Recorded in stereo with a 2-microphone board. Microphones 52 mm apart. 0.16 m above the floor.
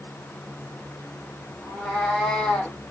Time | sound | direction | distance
1.6 | a cat meowing | centre (ahead or behind) | 2.0 m